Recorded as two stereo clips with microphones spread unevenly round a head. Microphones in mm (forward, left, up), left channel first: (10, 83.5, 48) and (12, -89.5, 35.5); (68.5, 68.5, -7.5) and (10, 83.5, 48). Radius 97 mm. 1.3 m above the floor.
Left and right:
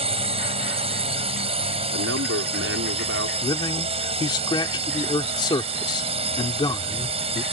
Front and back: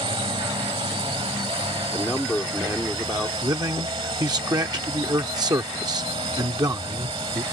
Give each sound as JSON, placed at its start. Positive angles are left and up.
{"t": 0.0, "sound": "a drone", "azimuth_deg": -150}
{"t": 1.9, "sound": "a man speaking", "azimuth_deg": -110}
{"t": 3.4, "sound": "a man speaking", "azimuth_deg": 160}